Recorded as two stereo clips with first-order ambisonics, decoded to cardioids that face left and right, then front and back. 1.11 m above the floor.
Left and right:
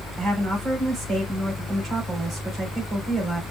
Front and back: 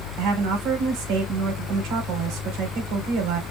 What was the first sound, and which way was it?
A woman speaking, 160° right.